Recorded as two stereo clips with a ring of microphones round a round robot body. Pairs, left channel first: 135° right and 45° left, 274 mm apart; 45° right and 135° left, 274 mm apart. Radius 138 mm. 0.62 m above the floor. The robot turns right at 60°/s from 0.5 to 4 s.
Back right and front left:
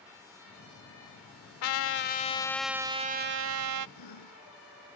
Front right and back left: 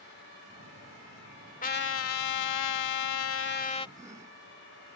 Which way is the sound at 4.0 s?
150° right.